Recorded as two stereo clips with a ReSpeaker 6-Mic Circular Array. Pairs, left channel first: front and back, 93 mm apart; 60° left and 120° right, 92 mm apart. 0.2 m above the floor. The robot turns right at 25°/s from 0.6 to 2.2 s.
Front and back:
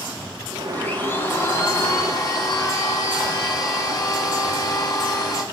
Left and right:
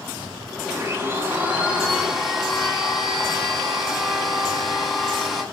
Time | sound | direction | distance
0.7 | a blender | 70° right | 0.9 m